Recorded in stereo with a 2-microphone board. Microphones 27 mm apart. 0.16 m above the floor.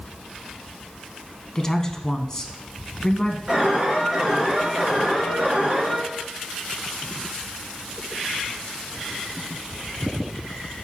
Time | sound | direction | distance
1.6 | a woman speaking | 20° left (ahead or behind) | 1.0 m
3.5 | an alarm | 20° right (ahead or behind) | 3.5 m